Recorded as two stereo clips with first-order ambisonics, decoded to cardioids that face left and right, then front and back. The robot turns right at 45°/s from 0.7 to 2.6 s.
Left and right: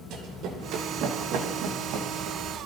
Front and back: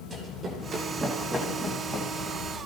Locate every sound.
0.1 s running footsteps: 115° right, 3.5 m; by 2.4 s 85° right, 3 m